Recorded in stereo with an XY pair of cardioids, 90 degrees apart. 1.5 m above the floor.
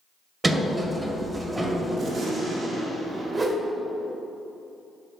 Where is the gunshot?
60° right, 2.5 m.